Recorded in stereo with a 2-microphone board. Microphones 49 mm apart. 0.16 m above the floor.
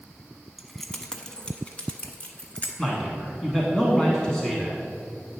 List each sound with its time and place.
0.6 s keys jangling: centre (ahead or behind), 0.7 m; by 2.7 s 35° left (ahead or behind), 1.2 m
2.8 s a man speaking: 10° left (ahead or behind), 1.1 m